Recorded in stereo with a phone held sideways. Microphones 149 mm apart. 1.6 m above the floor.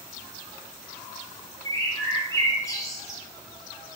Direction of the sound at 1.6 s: 20° left (ahead or behind).